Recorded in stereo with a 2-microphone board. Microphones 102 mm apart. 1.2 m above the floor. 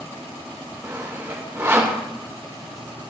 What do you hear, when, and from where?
0.8 s sawing: 25° right (ahead or behind), 1.2 m